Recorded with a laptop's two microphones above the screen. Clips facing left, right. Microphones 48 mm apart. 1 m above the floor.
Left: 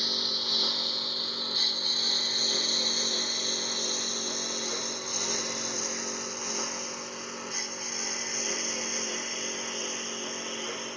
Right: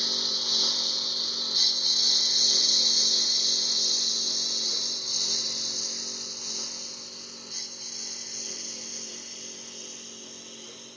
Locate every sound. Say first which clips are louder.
0.0 s a lawn mower: even; 5° left (ahead or behind); by 11.0 s 55° left (ahead or behind)